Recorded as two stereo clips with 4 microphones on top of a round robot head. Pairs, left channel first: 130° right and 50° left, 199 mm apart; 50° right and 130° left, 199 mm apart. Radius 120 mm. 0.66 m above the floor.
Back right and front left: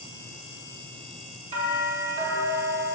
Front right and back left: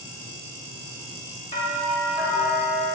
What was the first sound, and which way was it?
A doorbell, straight ahead.